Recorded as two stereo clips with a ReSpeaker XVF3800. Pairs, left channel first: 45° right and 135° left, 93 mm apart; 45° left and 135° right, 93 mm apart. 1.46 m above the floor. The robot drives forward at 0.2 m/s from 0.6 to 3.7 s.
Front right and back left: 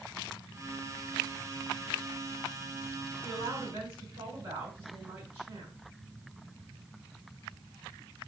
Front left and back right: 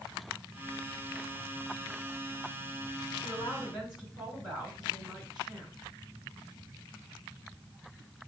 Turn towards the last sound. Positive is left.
turn(degrees=140)